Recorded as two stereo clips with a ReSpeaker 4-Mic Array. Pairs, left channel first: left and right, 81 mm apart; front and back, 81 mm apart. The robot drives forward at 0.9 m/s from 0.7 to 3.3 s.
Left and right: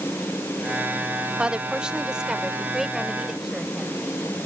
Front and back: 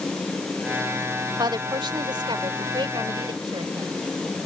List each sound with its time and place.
1.4 s a woman speaking: 165° right; by 3.9 s 175° right